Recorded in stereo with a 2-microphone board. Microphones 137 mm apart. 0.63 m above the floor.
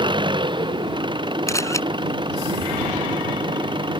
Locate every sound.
0.0 s an engine running: 35° right (ahead or behind)
1.5 s a camera shutter: 20° left (ahead or behind)